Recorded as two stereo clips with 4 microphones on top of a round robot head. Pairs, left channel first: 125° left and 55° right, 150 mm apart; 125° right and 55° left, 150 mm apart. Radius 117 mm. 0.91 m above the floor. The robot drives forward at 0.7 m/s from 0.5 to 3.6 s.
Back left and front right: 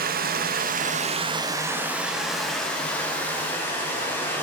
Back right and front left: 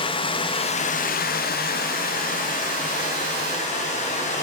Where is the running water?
70° right, 0.7 m; by 4.5 s 160° right, 2 m.